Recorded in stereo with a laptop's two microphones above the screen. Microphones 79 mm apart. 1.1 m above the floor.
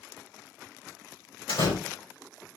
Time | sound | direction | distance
1.5 | a door slam | 75° left (ahead or behind) | 3.5 m